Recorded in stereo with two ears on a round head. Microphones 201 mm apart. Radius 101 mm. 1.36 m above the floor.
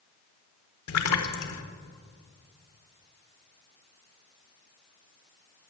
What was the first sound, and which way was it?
A splash, 75° left (ahead or behind).